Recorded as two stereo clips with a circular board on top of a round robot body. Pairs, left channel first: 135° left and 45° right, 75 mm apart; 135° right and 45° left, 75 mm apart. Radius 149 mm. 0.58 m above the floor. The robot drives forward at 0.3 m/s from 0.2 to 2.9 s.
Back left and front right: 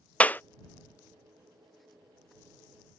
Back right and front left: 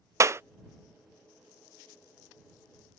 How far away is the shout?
No shout in this recording.